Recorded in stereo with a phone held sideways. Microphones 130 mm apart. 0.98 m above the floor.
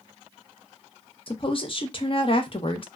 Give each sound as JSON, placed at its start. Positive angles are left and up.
{"t": 1.3, "sound": "a woman speaking", "side_deg": 40, "distance_m": 0.7}